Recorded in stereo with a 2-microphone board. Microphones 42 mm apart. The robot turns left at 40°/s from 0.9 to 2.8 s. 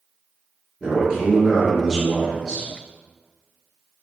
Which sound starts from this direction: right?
A man speaking, at 0.8 s.